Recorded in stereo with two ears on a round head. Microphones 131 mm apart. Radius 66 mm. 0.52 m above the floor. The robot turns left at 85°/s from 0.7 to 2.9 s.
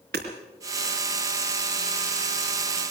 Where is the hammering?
85° right, 4 m.